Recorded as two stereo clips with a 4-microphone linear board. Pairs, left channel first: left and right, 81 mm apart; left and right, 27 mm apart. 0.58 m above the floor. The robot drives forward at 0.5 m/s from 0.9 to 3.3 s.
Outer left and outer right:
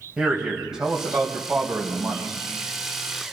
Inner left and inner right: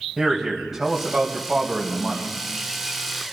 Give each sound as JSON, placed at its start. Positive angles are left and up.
{"t": 0.2, "sound": "a man speaking", "side_deg": -5, "distance_m": 2.5}